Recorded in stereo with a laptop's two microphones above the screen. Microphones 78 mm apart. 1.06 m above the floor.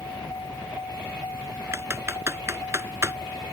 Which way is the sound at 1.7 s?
30° right (ahead or behind).